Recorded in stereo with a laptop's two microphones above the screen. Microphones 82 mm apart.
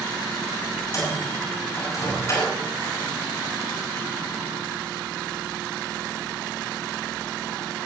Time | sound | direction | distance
0.9 | a microwave | 40° left (ahead or behind) | 6 m